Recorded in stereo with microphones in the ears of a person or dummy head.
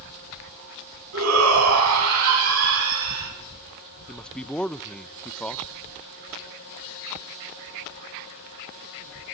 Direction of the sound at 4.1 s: 10° left (ahead or behind).